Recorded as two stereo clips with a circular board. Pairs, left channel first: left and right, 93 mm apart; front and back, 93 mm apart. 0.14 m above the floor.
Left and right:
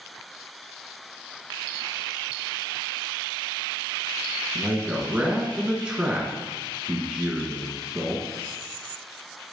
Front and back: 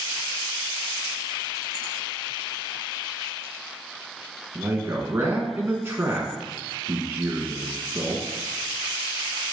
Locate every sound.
4.5 s a man speaking: 155° right, 1.1 m